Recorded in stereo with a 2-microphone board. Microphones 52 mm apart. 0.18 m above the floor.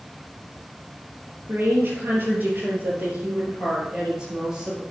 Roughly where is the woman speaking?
Right.